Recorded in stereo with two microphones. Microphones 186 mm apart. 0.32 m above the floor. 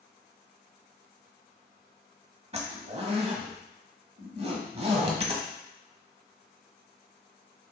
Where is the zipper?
35° right (ahead or behind), 1.0 m.